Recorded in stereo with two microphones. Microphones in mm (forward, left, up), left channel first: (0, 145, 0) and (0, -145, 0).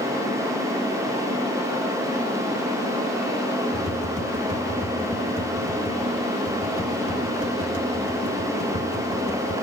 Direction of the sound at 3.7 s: 25° left (ahead or behind).